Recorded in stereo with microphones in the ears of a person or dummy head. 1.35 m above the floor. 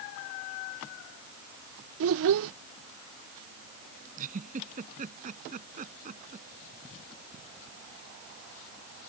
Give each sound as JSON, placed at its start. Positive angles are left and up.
{"t": 2.0, "sound": "a child speaking", "side_deg": -65}
{"t": 4.2, "sound": "a giggle", "side_deg": -45}